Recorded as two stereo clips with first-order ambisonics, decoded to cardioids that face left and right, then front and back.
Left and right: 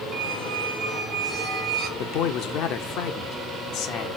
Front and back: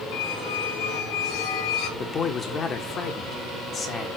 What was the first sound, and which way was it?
A squeak, 30° right.